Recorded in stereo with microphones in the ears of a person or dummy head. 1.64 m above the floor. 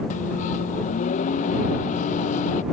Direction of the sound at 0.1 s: 40° left (ahead or behind).